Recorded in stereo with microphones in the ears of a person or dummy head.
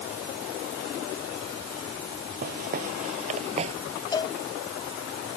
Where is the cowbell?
25° left (ahead or behind).